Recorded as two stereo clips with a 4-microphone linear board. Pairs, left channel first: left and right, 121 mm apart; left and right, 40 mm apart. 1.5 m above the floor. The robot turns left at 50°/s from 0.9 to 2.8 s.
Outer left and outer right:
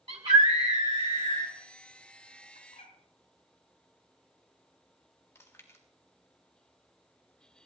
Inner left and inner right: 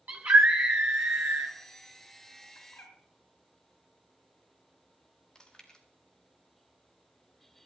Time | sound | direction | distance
0.1 | a scream | 50° right | 1.1 m
2.5 | a bird | 80° left | 3 m
5.3 | chewing | 20° left (ahead or behind) | 1.8 m